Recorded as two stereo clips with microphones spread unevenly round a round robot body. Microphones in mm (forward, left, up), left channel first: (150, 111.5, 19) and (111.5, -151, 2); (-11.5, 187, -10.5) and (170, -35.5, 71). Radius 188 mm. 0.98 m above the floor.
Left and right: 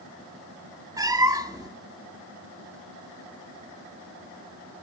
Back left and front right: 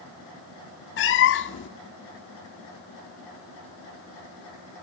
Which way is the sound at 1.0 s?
175° right.